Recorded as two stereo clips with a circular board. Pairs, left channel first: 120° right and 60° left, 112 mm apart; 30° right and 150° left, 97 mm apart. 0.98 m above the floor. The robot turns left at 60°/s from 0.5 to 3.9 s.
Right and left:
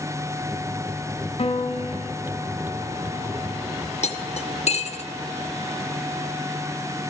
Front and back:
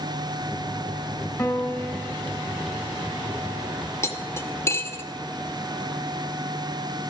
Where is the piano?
90° right, 1.5 m; by 2.1 s 130° right, 1.5 m.